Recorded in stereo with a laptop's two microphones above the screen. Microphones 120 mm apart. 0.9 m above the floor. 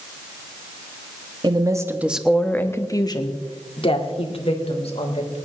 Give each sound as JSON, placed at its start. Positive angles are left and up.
{"t": 1.4, "sound": "a woman speaking", "side_deg": -40, "distance_m": 1.2}